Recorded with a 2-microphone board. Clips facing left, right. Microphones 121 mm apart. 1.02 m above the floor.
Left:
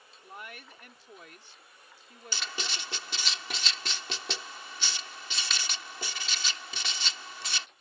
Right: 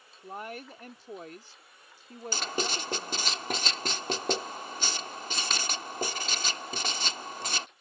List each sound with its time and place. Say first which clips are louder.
0.2 s a woman speaking: right 7 dB; 40° right (ahead or behind)
2.3 s writing: right 7 dB; 45° right (ahead or behind)